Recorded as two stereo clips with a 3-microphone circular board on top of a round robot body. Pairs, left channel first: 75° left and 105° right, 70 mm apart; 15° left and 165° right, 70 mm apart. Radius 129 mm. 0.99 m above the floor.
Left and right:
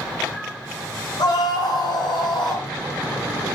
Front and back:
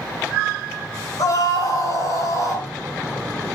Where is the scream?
55° left, 7 m; by 2.7 s 60° left, 7 m.